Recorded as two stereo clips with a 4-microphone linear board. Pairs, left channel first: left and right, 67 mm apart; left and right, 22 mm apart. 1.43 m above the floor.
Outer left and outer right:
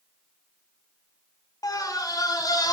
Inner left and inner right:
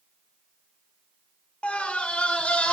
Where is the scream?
65° left (ahead or behind), 4 m; by 2.7 s 70° left (ahead or behind), 4.5 m.